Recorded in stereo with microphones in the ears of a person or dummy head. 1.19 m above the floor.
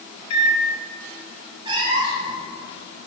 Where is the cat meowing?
30° right (ahead or behind), 1.7 m.